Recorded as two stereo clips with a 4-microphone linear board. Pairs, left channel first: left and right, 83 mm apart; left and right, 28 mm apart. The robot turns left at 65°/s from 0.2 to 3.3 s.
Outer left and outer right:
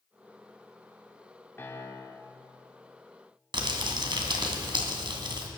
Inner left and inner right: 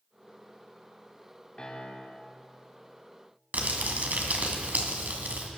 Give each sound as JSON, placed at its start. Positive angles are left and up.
{"t": 1.6, "sound": "a piano", "azimuth_deg": 145, "distance_m": 1.6}
{"t": 3.5, "sound": "crumpling", "side_deg": -75, "distance_m": 1.9}